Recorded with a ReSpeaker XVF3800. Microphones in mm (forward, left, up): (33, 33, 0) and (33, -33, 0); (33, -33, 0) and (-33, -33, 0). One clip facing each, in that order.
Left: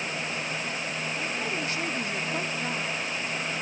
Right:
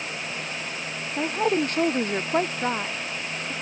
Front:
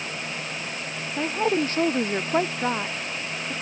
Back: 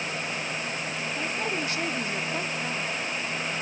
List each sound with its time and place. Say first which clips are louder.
1.2 s a woman speaking: right 12 dB, front 9 dB; 55° right; by 3.5 s 30° right